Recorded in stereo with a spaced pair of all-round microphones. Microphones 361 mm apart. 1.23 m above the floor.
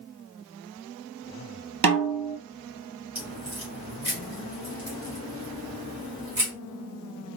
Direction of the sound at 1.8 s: 80° right.